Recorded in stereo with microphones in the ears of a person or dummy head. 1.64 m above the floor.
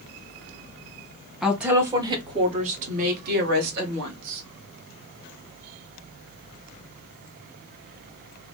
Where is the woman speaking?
Centre (ahead or behind), 1.4 m; by 4.4 s 60° right (ahead or behind), 2.5 m.